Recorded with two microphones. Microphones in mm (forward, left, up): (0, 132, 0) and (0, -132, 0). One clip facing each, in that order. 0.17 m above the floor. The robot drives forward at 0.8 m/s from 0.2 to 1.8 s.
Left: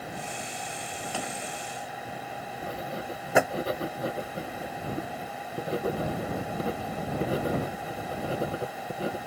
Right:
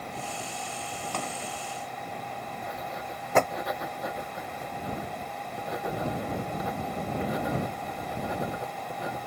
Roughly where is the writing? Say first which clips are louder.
Left 6 dB; left.